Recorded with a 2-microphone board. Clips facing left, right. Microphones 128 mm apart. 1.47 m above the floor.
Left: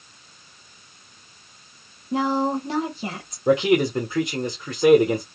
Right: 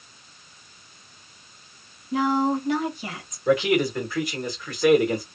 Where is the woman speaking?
30° left (ahead or behind), 1.5 m.